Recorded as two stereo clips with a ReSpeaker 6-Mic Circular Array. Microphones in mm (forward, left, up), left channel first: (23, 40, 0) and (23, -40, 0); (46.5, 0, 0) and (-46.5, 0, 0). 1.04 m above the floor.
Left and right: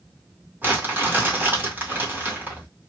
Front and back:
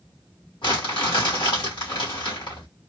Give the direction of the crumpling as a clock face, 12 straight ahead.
1 o'clock.